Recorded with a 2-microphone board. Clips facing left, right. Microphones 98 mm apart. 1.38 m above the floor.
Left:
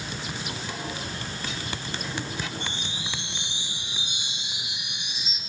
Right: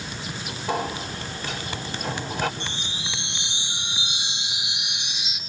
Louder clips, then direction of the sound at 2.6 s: Right 1 dB; 85° right.